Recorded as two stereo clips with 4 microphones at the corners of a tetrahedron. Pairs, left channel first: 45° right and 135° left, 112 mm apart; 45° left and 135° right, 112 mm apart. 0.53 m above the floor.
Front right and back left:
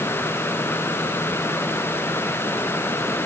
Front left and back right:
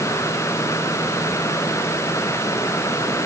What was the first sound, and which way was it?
Only background noise.